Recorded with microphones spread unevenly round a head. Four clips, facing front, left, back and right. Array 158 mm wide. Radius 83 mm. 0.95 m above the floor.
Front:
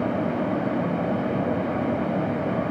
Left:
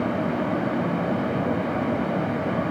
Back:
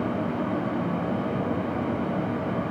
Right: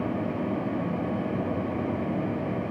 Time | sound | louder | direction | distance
0.0 | a fan | left 4 dB, front 3 dB | 15° left | 3 m